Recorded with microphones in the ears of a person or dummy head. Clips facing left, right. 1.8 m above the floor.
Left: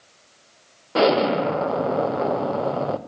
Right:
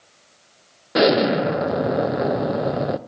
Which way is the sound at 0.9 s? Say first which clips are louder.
Right 2 dB; 20° right (ahead or behind).